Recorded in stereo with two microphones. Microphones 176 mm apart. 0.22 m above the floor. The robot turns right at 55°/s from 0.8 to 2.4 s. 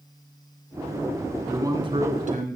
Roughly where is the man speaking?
Behind.